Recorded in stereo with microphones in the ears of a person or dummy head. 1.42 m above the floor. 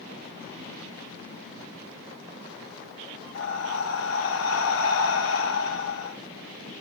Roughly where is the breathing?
Left.